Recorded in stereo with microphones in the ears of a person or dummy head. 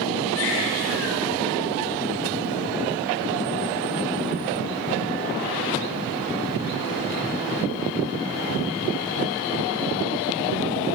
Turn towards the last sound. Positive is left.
turn(degrees=80)